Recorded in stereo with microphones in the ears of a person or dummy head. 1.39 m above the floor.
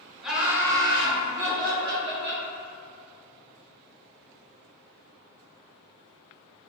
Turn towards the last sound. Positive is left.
turn(degrees=-60)  # may be behind; listen again after turning